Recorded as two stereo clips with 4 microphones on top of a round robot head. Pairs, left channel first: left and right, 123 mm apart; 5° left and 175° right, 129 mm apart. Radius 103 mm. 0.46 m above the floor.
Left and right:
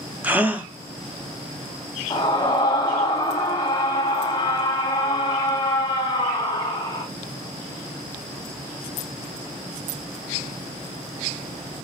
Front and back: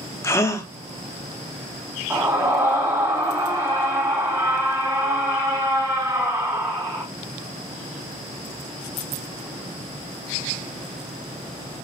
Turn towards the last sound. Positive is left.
turn(degrees=125)